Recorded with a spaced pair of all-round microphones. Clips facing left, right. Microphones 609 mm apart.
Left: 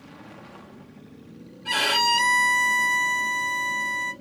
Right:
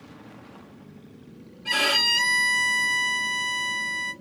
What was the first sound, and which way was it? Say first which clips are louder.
A violin: left 1 dB; 5° right (ahead or behind).